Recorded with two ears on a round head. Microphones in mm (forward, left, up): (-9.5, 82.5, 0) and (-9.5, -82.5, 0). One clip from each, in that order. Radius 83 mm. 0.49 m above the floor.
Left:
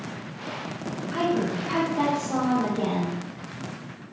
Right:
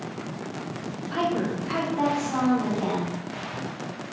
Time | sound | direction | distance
1.1 | a woman speaking | 10° right (ahead or behind) | 1.0 m